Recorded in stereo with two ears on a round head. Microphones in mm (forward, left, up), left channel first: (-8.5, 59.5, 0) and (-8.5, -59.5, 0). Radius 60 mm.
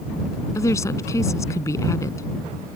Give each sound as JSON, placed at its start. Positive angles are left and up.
{"t": 0.6, "sound": "a woman speaking", "side_deg": 25}